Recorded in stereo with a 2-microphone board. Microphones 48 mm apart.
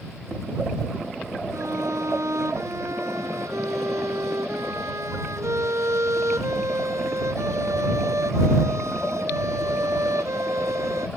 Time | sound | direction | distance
1.5 | a violin | 80° right | ?